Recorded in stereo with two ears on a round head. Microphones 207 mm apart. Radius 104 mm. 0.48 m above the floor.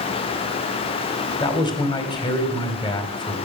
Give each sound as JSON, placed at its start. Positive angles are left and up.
{"t": 1.4, "sound": "a man speaking", "side_deg": 20, "distance_m": 2.5}